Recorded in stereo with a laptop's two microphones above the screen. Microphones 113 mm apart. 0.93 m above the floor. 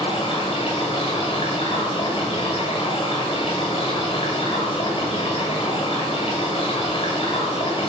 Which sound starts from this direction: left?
Running water, at 0.0 s.